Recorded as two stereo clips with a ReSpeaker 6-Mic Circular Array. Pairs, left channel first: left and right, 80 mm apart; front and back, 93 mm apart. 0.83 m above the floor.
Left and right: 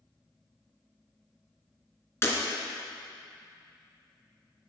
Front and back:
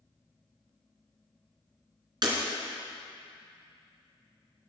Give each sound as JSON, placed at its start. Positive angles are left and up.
{"t": 2.2, "sound": "breaking glass", "azimuth_deg": 145, "distance_m": 2.0}